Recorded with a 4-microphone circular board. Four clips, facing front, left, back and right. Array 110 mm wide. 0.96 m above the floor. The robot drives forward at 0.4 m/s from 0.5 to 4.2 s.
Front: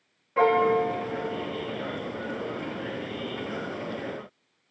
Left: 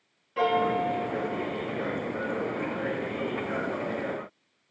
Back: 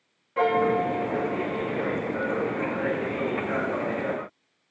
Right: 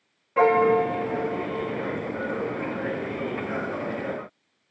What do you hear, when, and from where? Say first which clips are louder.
0.4 s a piano: right 6 dB, front 1 dB; 75° right, 0.6 m; by 2.1 s 150° right, 0.8 m